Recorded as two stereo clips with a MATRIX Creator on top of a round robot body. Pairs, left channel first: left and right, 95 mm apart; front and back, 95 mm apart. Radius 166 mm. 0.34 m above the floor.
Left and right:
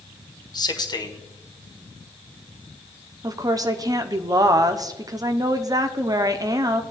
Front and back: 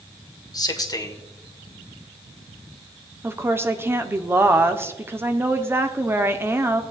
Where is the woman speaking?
125° right, 1.0 m.